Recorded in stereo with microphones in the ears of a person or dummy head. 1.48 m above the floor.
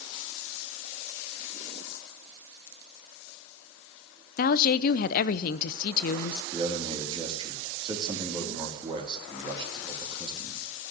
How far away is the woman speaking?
About 0.6 m.